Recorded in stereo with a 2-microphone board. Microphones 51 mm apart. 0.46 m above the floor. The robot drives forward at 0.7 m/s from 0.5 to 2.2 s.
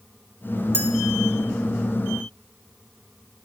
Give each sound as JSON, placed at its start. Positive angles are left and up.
{"t": 0.7, "sound": "a clink", "side_deg": -45, "distance_m": 1.7}